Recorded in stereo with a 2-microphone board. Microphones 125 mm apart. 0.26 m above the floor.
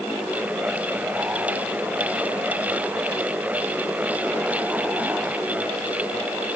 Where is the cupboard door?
I don't hear a cupboard door.